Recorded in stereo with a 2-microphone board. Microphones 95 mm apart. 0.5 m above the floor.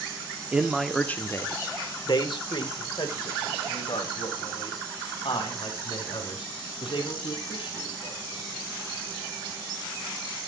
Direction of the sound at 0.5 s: 15° right (ahead or behind).